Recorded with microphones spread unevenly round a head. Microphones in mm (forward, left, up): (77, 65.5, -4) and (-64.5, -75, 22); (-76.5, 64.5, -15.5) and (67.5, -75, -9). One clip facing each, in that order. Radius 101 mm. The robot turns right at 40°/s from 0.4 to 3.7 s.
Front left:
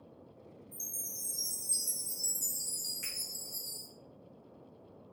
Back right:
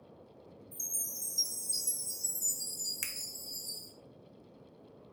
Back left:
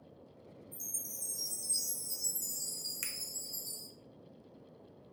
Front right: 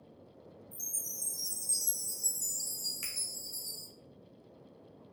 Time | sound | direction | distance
0.7 | a chime | 80° right | 1.8 m
3.0 | a finger snap | 155° right | 0.5 m